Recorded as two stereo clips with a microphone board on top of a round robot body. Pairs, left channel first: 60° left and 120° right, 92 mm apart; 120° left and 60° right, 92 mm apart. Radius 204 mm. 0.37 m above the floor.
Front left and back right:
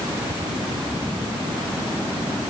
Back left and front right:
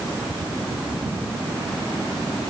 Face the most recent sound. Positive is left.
No sound to turn to.